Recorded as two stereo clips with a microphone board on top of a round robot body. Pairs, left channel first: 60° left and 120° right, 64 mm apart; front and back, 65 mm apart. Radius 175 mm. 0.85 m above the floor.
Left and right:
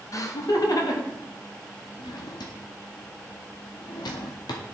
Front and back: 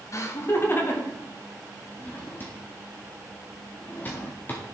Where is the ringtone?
No ringtone in this recording.